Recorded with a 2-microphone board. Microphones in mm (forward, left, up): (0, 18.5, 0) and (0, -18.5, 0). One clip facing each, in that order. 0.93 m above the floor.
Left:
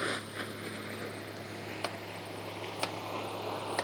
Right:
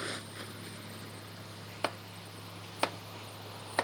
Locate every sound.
0.0 s a vehicle: 25° left (ahead or behind); by 3.8 s 90° left
1.8 s chopping: 20° right (ahead or behind)